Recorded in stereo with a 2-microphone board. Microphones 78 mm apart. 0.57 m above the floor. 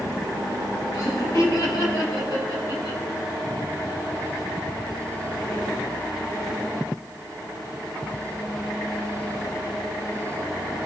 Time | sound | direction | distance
0.9 | laughter | 40° left (ahead or behind) | 3.5 m